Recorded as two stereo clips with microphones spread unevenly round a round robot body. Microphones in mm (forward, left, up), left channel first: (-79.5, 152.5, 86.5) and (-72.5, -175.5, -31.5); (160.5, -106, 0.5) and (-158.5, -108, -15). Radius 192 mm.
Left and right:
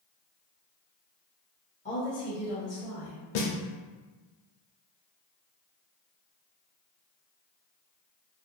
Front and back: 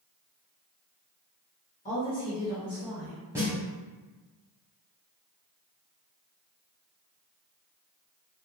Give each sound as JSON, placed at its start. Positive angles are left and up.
{"t": 1.9, "sound": "a woman speaking", "azimuth_deg": 0, "distance_m": 1.1}
{"t": 3.4, "sound": "a snare drum", "azimuth_deg": 100, "distance_m": 0.7}